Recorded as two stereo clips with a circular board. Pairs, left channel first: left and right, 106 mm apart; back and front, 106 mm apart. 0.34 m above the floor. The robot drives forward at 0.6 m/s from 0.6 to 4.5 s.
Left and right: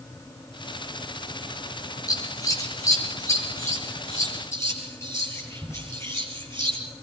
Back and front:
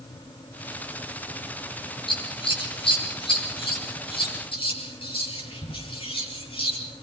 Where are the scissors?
145° left, 6.5 m; by 6.8 s 155° left, 7.5 m.